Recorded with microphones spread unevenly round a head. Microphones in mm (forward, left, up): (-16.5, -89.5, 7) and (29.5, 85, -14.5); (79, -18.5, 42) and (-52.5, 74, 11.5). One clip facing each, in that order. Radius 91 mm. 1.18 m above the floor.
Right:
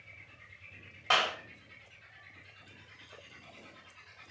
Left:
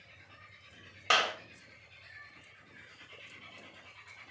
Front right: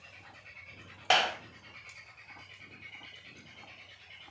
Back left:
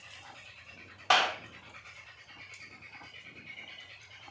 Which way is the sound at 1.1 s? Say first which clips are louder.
Even, even; 25° left.